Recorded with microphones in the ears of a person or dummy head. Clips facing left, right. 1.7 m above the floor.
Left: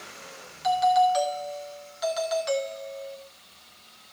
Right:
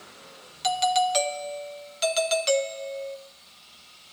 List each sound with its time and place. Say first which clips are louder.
0.6 s a doorbell: left 3 dB; 35° right (ahead or behind), 0.7 m